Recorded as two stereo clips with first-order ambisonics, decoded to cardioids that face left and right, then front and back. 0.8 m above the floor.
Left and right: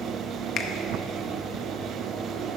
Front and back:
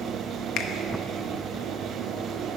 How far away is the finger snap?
About 0.6 m.